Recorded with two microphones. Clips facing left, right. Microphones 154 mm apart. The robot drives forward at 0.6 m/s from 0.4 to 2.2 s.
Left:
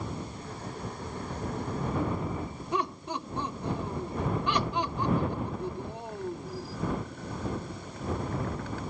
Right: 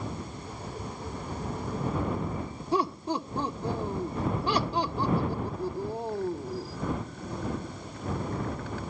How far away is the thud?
No thud in this recording.